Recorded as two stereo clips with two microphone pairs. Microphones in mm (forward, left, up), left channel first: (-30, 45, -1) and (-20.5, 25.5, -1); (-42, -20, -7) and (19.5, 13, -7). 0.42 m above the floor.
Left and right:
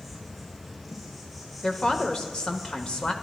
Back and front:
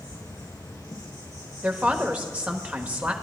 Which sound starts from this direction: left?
A woman speaking, at 1.6 s.